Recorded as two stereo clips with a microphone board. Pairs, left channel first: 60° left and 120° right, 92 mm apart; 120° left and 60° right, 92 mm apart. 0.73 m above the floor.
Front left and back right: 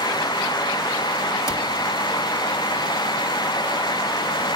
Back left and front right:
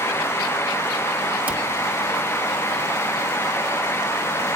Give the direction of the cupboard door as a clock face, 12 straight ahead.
12 o'clock.